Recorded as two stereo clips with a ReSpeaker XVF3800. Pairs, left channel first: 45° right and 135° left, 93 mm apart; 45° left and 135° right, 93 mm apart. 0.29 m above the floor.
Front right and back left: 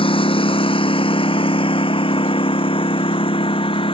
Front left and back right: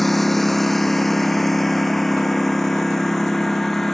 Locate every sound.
0.0 s a lawn mower: 45° right; by 4.0 s 40° right